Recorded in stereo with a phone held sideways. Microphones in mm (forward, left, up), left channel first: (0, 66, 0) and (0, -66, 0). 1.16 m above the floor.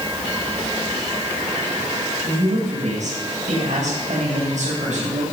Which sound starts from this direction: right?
A woman speaking, at 2.2 s.